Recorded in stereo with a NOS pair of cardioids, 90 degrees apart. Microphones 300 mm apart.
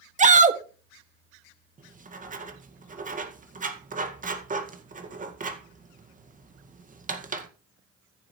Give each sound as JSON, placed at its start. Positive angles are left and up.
{"t": 0.2, "sound": "a shout", "azimuth_deg": -25, "distance_m": 1.7}
{"t": 1.8, "sound": "writing", "azimuth_deg": -30, "distance_m": 2.0}